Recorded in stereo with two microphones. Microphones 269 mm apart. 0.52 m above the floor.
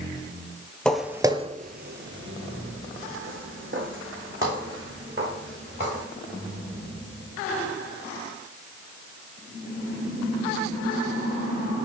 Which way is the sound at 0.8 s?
5° left (ahead or behind).